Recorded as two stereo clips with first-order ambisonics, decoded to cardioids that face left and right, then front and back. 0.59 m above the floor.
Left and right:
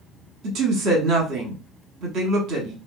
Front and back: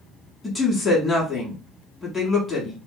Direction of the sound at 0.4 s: 85° right.